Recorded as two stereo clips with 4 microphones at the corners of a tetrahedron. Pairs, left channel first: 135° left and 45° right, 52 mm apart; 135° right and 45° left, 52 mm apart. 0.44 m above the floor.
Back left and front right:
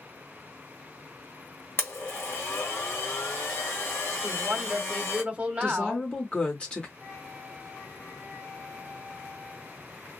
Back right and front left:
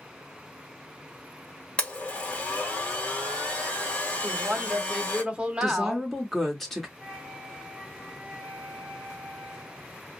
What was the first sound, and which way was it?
A blender, 160° left.